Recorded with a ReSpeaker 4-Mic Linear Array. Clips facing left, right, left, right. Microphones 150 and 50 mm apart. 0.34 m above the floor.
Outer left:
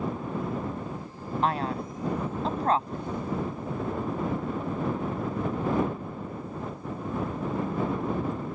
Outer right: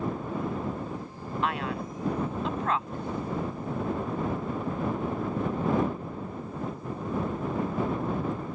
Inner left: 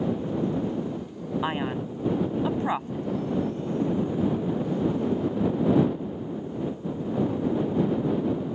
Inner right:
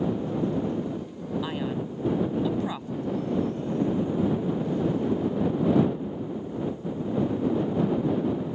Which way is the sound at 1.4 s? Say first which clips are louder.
Outer left 3 dB, inner left 3 dB; 35° left (ahead or behind).